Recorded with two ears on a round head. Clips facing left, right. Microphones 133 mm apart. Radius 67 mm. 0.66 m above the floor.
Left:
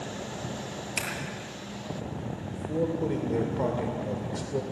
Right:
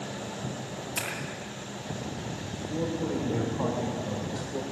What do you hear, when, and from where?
1.0 s scissors: 10° left (ahead or behind), 7 m
2.5 s a man speaking: 30° left (ahead or behind), 2.5 m